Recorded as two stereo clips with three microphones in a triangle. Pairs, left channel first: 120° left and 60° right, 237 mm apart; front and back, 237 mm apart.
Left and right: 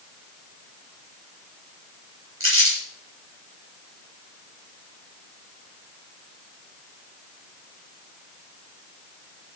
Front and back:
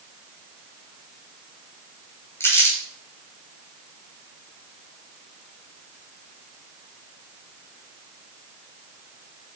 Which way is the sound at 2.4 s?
80° right.